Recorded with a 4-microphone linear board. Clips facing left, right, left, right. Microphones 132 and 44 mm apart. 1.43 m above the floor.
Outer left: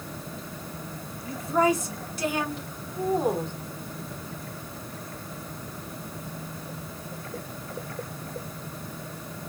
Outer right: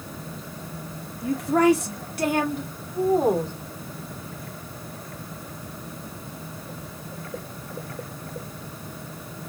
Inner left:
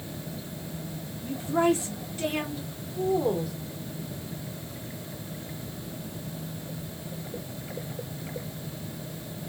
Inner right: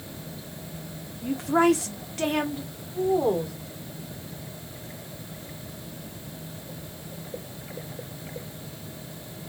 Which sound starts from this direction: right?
A woman speaking, at 1.2 s.